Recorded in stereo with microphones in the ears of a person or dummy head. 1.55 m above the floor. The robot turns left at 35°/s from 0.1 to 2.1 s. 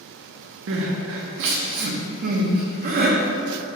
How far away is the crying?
About 0.5 m.